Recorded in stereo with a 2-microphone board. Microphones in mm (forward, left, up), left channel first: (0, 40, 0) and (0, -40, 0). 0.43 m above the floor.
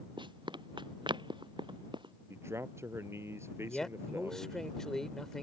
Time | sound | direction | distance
0.2 | running footsteps | 80° right | ?
2.3 | a man speaking | 35° right (ahead or behind) | ?
3.7 | a man speaking | 5° left (ahead or behind) | ?